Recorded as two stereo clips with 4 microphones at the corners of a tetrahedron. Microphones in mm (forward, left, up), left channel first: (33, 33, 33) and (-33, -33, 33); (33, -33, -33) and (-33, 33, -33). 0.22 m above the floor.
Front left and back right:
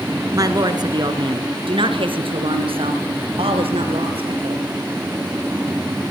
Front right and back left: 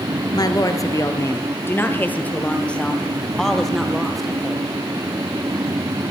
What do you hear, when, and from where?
0.3 s a woman speaking: 85° right, 2.5 m; by 4.7 s 140° right, 5 m